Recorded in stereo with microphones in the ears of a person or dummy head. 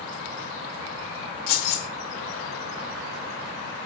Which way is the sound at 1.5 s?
45° left (ahead or behind).